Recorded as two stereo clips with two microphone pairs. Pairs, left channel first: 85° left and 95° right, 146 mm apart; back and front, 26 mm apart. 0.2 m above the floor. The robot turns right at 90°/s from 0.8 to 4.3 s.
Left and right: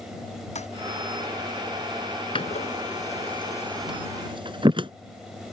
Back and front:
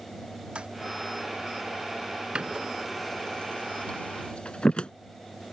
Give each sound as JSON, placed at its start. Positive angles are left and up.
{"t": 0.6, "sound": "a toilet flushing", "azimuth_deg": 45}
{"t": 2.4, "sound": "a door slam", "azimuth_deg": 40}